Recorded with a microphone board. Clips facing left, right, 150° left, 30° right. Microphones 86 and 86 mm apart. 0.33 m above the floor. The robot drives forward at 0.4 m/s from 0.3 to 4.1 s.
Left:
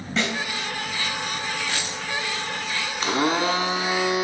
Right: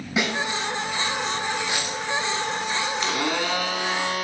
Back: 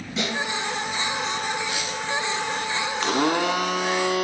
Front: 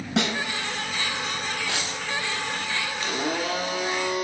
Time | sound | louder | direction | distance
0.2 | a snare drum | right 1 dB, front 3 dB | 15° right | 4.5 m
1.7 | a dropped coin | right 2 dB, back 2 dB | 15° right | 3.5 m
3.0 | a blender | left 8 dB, back 7 dB | 145° left | 0.6 m